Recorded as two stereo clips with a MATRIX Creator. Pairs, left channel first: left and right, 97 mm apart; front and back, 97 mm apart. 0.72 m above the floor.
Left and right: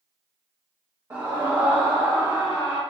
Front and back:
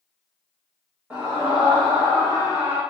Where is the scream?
120° right, 0.9 m.